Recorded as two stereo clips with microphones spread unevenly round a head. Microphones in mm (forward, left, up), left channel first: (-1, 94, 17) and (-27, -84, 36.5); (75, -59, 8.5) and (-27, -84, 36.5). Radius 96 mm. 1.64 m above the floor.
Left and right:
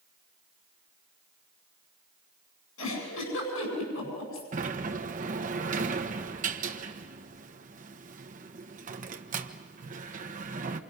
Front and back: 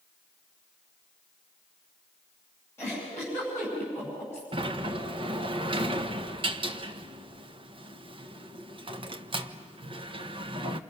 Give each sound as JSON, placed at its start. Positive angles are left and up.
{"t": 2.8, "sound": "a giggle", "azimuth_deg": 95, "distance_m": 8.5}
{"t": 4.5, "sound": "a sliding door", "azimuth_deg": -140, "distance_m": 1.4}